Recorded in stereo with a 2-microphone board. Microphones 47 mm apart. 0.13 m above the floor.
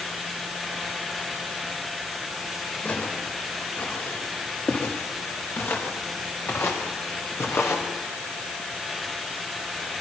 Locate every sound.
2.8 s footsteps: 40° left (ahead or behind), 8 m; by 7.9 s 65° left (ahead or behind), 4 m